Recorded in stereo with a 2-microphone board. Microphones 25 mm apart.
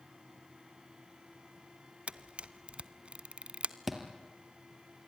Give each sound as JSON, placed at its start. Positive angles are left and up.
{"t": 2.1, "sound": "a camera shutter", "side_deg": -50, "distance_m": 0.8}
{"t": 3.9, "sound": "a thud", "side_deg": -5, "distance_m": 3.0}